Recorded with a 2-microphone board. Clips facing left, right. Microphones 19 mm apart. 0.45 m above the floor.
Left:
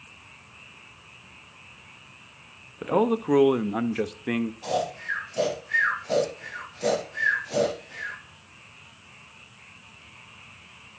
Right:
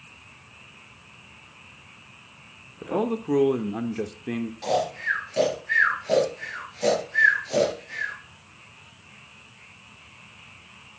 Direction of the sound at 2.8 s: 20° left (ahead or behind).